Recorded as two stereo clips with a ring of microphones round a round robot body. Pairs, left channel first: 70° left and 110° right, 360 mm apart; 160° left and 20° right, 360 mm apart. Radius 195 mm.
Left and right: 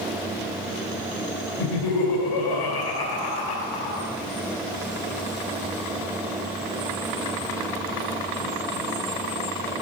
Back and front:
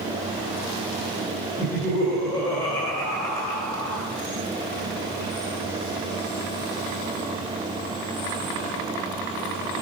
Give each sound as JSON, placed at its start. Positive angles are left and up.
{"t": 1.6, "sound": "laughter", "azimuth_deg": 75, "distance_m": 2.0}